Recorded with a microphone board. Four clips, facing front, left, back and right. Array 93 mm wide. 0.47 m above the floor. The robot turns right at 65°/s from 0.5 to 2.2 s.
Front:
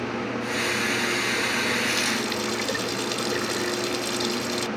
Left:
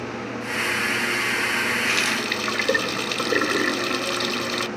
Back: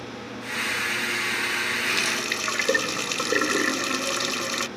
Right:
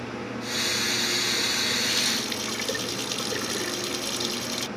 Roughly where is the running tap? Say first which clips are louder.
Left 6 dB, front 2 dB; left.